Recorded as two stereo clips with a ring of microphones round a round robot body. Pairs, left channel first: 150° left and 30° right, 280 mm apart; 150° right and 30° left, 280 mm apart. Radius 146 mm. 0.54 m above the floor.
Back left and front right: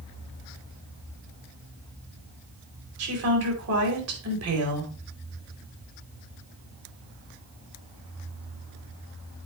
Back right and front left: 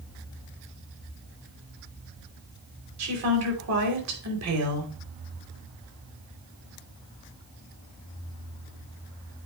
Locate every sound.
3.0 s a woman speaking: straight ahead, 3 m